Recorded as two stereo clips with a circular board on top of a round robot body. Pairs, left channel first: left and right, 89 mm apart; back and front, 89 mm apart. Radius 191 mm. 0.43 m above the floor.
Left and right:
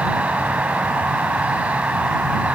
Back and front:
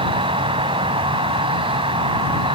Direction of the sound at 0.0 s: 15° right.